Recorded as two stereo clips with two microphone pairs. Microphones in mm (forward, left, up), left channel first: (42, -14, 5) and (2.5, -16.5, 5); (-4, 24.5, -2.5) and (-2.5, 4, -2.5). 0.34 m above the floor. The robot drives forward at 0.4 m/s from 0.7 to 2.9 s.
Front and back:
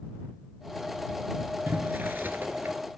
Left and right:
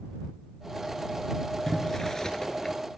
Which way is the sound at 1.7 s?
160° left.